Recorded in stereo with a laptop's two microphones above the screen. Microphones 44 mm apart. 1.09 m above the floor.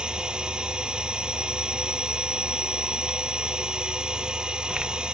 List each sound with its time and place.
0.0 s a machine running: 20° right (ahead or behind)